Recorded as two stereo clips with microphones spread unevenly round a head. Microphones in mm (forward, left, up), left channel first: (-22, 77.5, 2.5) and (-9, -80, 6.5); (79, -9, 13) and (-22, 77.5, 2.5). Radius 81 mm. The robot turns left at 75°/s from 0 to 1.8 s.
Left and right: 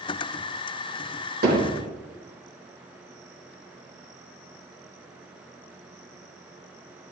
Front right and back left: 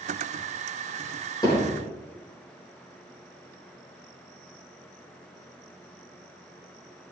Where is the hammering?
105° right, 5.5 m; by 1.9 s 135° right, 5.5 m.